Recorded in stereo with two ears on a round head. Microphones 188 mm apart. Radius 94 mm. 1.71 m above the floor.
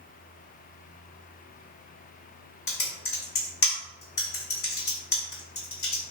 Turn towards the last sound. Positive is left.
turn(degrees=50)  # may be behind; listen again after turning